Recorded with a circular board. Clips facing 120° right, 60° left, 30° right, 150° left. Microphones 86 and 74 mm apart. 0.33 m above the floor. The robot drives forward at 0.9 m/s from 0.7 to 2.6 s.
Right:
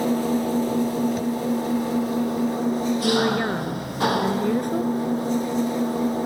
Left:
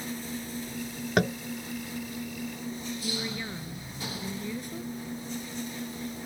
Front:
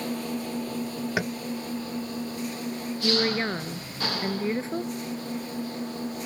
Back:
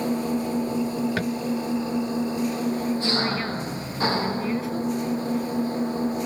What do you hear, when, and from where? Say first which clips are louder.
0.0 s an engine running: right 15 dB, back 6 dB; 140° right; by 6.2 s 145° right
1.2 s tapping: right 1 dB, back 3 dB; 50° left; by 1.4 s 55° left
3.0 s a woman speaking: right 15 dB, even; 90° right